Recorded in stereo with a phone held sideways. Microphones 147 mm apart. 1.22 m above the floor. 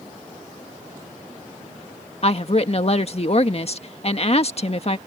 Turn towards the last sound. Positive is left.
turn(degrees=45)  # may be behind; listen again after turning